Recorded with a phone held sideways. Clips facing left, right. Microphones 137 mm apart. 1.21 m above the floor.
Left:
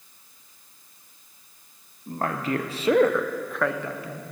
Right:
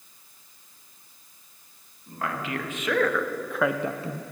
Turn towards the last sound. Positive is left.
turn(degrees=-35)  # may be behind; listen again after turning